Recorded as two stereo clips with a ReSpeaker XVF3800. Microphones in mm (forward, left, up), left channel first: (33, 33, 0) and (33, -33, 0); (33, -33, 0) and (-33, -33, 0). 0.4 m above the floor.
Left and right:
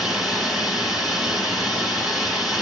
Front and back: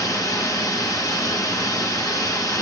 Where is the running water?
5° right, 2 m.